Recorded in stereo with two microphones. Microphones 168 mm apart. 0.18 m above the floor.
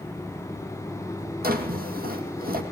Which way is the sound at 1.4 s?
60° right (ahead or behind).